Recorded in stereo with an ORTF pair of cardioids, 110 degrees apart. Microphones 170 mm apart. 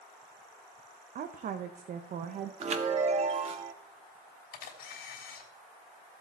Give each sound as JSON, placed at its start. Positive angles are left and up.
{"t": 1.1, "sound": "a woman speaking", "azimuth_deg": -50, "distance_m": 0.9}
{"t": 2.6, "sound": "a chime", "azimuth_deg": -40, "distance_m": 1.4}
{"t": 4.5, "sound": "a camera shutter", "azimuth_deg": 65, "distance_m": 3.5}